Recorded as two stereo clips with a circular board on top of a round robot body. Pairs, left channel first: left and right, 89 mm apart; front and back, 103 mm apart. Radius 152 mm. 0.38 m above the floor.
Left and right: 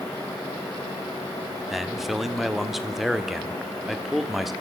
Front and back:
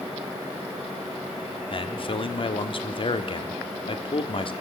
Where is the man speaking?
5° right, 1.6 m.